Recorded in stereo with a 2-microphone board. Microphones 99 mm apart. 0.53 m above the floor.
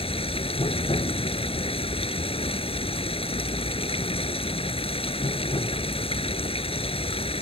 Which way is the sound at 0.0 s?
75° left (ahead or behind).